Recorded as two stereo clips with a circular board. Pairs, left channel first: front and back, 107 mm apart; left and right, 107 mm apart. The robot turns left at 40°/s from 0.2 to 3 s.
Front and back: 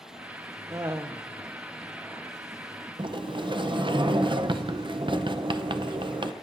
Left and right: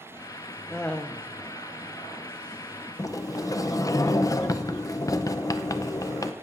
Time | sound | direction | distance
0.7 | laughter | 170° left | 0.7 m
3.0 | a sliding door | 145° left | 0.5 m